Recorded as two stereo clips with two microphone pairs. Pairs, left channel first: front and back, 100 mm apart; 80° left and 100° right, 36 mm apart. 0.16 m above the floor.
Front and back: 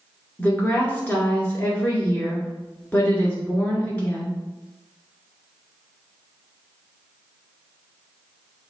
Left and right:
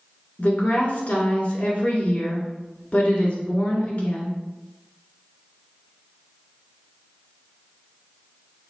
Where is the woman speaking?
65° left, 1.8 m.